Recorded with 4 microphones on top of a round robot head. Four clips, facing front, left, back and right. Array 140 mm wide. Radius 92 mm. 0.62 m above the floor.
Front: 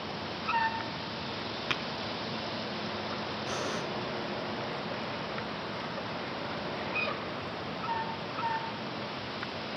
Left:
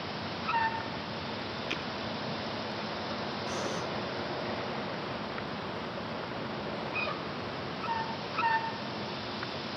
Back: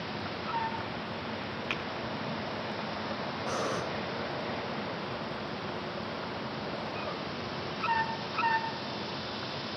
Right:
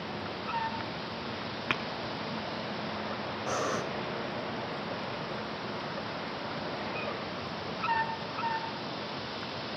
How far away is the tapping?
About 2.5 m.